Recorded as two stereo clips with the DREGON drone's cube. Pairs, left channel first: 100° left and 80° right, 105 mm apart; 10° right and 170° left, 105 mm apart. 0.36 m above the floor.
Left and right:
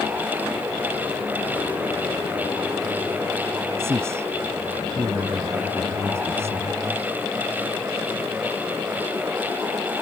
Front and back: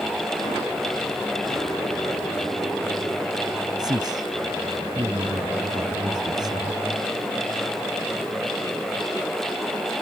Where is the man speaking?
145° right.